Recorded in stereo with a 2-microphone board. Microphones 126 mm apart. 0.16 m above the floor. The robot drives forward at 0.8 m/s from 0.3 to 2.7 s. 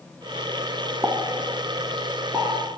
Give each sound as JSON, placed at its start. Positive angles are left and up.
{"t": 1.0, "sound": "a pop", "side_deg": -20, "distance_m": 0.6}